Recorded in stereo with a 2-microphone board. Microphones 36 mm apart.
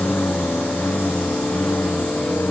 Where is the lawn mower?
80° left; by 2.5 s 75° left (ahead or behind).